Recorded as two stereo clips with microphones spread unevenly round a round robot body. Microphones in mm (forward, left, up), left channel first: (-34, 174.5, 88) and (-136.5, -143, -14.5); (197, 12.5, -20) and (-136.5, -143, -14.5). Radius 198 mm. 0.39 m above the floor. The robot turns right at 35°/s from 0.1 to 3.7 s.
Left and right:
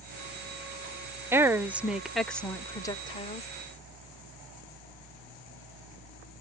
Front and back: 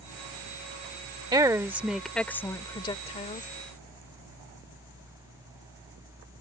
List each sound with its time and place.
1.3 s a woman speaking: 90° right; by 3.5 s 10° right